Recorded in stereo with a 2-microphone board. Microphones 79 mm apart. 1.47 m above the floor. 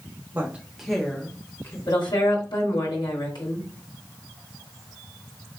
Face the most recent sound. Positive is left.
turn(degrees=70)  # may be behind; listen again after turning